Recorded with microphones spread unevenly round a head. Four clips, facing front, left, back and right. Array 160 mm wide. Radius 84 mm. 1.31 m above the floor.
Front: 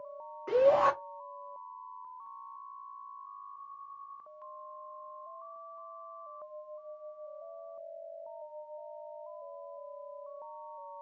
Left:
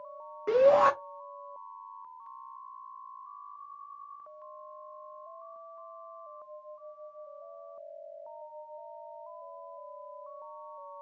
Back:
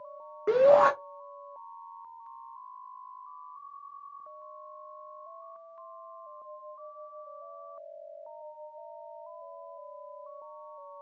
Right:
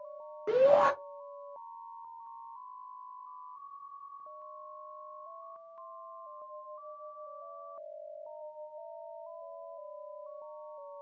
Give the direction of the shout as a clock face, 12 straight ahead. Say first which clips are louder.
Left 2 dB, back 4 dB; 7 o'clock.